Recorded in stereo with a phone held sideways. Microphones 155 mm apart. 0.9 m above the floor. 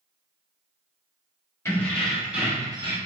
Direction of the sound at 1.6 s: 15° left (ahead or behind).